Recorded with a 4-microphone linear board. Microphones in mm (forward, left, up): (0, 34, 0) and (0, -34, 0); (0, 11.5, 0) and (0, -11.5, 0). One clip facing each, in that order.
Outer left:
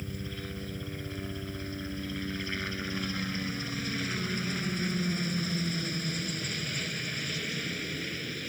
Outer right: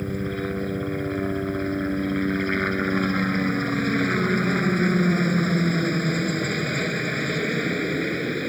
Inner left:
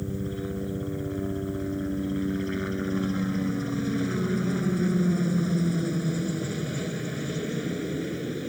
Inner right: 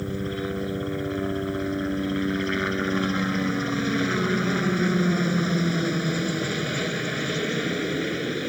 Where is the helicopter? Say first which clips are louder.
Outer right 12 dB, inner right 3 dB; 50° right (ahead or behind).